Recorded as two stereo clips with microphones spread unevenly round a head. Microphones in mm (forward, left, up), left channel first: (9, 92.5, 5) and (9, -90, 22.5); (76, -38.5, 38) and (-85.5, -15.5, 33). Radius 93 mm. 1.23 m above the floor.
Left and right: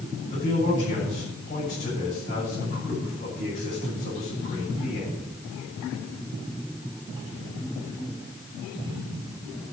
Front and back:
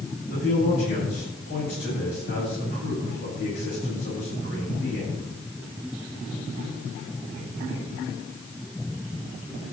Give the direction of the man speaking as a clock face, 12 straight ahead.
11 o'clock.